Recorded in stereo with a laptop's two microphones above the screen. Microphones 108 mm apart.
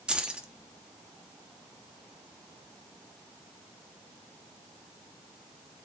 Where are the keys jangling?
10° right (ahead or behind), 1.0 m.